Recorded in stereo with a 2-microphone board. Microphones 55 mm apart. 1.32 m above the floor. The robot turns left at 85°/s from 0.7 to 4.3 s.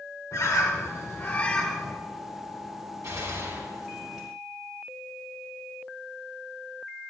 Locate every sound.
0.3 s a bird: 95° left, 2.5 m; by 1.9 s 15° right, 2.5 m
3.0 s a gunshot: 70° right, 7 m; by 4.3 s 175° right, 7 m